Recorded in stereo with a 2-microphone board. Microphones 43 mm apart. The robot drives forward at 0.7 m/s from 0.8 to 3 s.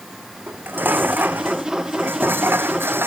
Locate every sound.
0.5 s dishes clattering: 50° right (ahead or behind); by 3.1 s 60° right (ahead or behind)